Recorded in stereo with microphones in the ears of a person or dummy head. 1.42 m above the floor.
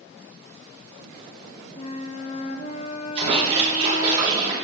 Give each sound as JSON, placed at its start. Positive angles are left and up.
{"t": 1.8, "sound": "a flute", "side_deg": 35, "distance_m": 0.6}
{"t": 3.1, "sound": "a splash", "side_deg": -25, "distance_m": 3.5}